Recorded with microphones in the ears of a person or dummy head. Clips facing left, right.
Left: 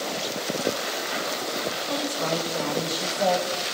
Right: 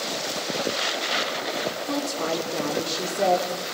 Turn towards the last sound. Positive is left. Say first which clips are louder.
# even
turn(degrees=-75)  # may be behind; listen again after turning